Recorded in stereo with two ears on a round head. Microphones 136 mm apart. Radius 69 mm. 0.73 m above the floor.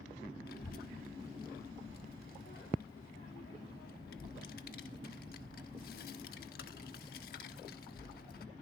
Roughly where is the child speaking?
Left.